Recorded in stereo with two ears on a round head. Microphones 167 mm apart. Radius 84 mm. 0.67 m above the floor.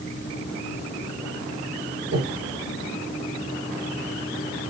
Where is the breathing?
70° right (ahead or behind), 2.5 m.